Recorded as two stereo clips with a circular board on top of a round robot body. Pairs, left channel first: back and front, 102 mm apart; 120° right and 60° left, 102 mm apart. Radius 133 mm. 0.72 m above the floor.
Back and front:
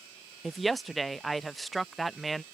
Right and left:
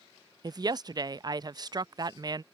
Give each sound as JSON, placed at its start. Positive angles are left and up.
{"t": 0.4, "sound": "a woman speaking", "azimuth_deg": 90}